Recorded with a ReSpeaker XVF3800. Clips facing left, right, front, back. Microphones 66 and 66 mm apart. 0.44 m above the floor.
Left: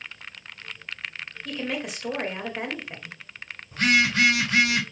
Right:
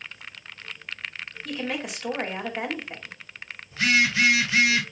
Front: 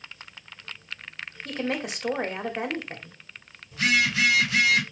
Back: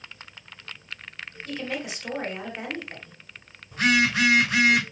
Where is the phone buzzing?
135° left, 4.5 m.